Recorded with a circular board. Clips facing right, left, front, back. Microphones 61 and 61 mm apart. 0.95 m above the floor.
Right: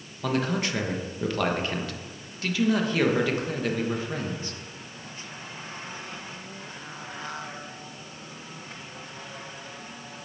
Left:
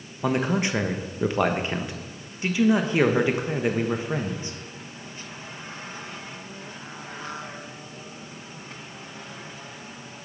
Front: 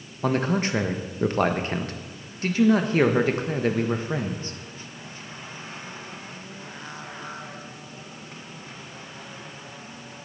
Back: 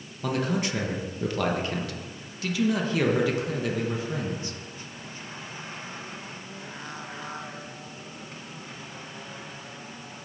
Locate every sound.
0.2 s a man speaking: 30° left, 1.0 m